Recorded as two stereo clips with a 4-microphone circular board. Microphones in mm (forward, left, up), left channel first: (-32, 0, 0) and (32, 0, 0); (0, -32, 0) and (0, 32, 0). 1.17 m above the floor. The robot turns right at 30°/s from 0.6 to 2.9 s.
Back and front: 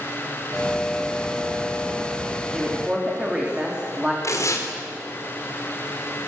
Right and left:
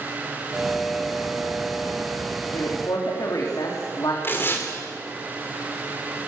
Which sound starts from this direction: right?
A woman speaking, at 2.5 s.